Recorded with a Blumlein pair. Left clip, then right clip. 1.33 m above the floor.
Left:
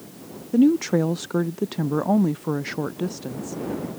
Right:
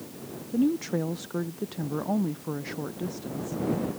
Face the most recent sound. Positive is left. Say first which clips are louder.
# left 8 dB
turn(degrees=70)